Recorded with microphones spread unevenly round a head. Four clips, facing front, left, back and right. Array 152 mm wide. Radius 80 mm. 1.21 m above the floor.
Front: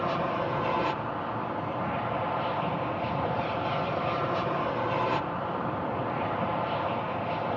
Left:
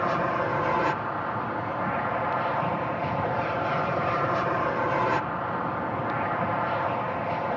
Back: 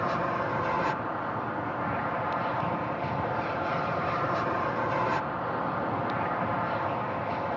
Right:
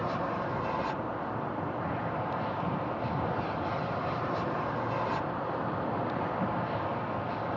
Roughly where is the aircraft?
Left.